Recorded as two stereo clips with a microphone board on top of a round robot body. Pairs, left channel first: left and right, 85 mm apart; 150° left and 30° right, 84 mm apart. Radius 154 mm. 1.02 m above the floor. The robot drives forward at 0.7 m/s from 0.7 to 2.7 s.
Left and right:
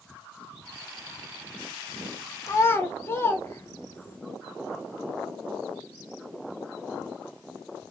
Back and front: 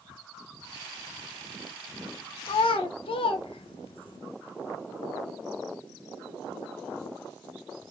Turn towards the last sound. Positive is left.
turn(degrees=155)